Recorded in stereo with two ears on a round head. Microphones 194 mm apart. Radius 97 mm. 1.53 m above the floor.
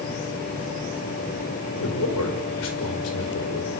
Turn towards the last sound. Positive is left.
turn(degrees=85)